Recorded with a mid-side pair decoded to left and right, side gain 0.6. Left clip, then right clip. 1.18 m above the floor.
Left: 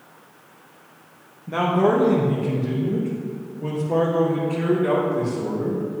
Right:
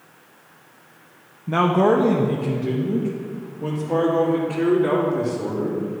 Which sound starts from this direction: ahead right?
A man speaking, at 1.5 s.